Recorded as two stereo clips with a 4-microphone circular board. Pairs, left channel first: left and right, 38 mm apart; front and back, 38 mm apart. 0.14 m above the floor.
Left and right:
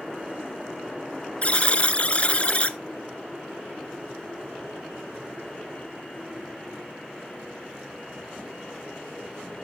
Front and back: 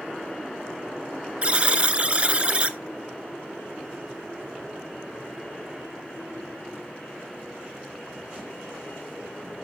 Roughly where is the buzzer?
Behind left.